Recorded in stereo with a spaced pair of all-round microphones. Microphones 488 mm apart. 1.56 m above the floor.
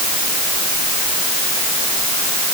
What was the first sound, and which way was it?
Only background noise.